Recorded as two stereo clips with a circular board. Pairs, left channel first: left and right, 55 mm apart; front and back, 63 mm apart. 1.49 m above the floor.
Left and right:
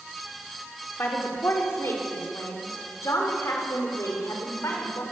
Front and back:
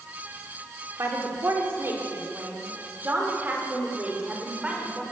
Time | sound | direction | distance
1.0 | a woman speaking | 140° left | 4.5 m